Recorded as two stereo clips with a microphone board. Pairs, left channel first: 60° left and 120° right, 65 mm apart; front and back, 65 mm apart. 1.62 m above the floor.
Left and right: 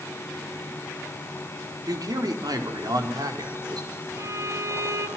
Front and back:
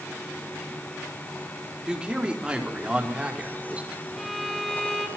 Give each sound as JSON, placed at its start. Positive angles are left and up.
{"t": 1.9, "sound": "a man speaking", "azimuth_deg": -105, "distance_m": 4.0}
{"t": 4.2, "sound": "a violin", "azimuth_deg": -85, "distance_m": 3.0}